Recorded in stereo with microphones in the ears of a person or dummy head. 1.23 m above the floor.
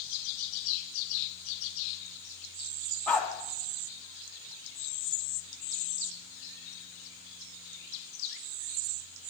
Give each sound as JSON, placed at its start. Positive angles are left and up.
{"t": 3.1, "sound": "a dog barking", "side_deg": 5, "distance_m": 2.5}